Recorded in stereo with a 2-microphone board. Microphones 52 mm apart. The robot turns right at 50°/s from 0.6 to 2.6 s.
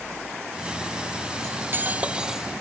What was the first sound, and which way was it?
Cutlery clinking, 55° right.